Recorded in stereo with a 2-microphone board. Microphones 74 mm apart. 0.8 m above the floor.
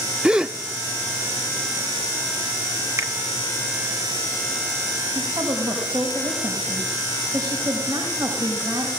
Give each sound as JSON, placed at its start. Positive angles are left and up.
{"t": 0.2, "sound": "a gasp", "side_deg": -15, "distance_m": 0.6}
{"t": 3.0, "sound": "a finger snap", "side_deg": -45, "distance_m": 1.4}
{"t": 5.2, "sound": "a woman speaking", "side_deg": -60, "distance_m": 4.0}